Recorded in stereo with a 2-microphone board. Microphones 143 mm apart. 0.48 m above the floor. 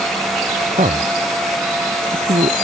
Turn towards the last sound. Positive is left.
turn(degrees=-60)  # may be behind; listen again after turning